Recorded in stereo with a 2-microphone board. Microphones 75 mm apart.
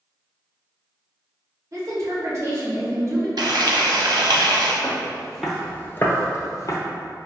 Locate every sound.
1.7 s a woman speaking: 50° right (ahead or behind), 1.5 m
3.4 s frying: 70° right (ahead or behind), 0.7 m
4.8 s footsteps: 10° right (ahead or behind), 1.3 m; by 6.8 s 45° left (ahead or behind), 0.9 m